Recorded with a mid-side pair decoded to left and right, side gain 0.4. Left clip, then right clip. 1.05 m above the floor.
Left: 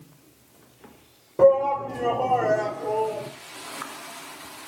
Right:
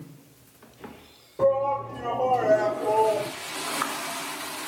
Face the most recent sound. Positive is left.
turn(degrees=-50)